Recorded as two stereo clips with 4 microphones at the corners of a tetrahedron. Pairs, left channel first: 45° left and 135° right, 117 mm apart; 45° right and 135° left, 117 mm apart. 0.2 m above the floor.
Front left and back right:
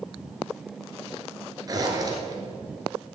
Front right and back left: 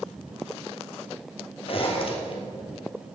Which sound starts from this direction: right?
A zipper, at 1.7 s.